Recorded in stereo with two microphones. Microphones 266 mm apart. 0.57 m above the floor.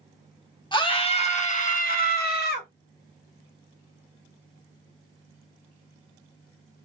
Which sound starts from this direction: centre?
A scream, at 0.7 s.